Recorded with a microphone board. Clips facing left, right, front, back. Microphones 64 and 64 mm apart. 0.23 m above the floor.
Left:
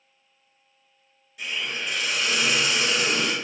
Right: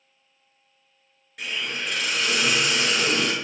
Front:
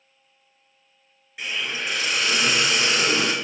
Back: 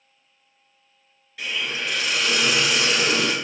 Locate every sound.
1.4 s a hiss: 70° right, 1.4 m